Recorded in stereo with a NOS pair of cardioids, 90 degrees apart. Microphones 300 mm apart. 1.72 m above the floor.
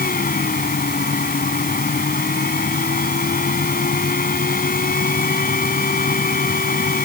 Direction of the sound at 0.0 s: 30° left.